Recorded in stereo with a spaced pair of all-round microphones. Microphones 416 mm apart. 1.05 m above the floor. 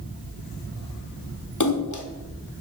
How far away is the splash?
About 1.1 m.